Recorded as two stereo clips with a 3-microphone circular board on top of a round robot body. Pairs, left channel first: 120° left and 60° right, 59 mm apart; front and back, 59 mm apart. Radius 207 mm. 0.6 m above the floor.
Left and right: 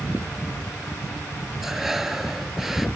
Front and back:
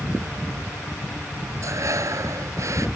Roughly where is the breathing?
Behind right.